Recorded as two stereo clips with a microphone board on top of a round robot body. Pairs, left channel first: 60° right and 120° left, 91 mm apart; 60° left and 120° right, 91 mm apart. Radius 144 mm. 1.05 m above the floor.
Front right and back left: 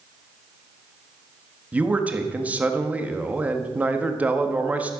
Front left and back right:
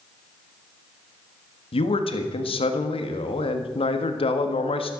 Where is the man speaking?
45° left, 1.6 m.